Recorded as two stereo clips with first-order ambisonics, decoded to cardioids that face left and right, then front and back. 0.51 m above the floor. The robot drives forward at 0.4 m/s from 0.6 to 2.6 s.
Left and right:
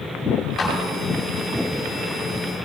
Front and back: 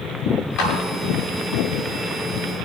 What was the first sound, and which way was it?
A clap, 25° left.